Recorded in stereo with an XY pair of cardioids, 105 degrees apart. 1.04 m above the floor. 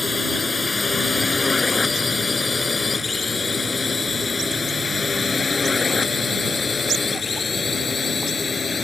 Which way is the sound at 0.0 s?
20° left.